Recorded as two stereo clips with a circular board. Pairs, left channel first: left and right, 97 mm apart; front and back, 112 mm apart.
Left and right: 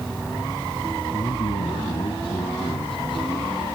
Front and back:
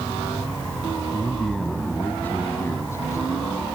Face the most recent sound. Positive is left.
turn(degrees=60)